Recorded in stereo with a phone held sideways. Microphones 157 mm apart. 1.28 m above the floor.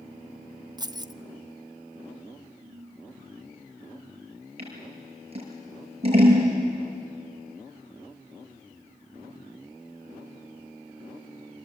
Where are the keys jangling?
25° right (ahead or behind), 0.5 m.